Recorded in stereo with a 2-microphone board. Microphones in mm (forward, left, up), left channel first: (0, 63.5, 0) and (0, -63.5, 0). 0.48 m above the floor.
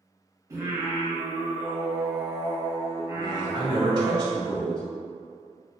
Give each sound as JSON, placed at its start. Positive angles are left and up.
{"t": 0.5, "sound": "singing", "side_deg": -25, "distance_m": 0.6}
{"t": 3.1, "sound": "a man speaking", "side_deg": -35, "distance_m": 1.6}